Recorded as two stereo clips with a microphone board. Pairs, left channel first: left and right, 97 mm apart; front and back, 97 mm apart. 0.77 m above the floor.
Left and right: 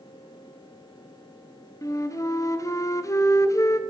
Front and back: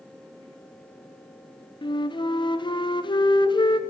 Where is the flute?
35° left, 0.5 m.